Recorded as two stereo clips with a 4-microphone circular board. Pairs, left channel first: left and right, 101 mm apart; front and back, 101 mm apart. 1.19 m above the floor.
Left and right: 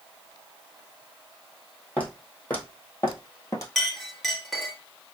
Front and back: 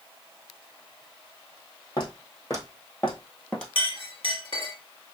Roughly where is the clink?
Ahead.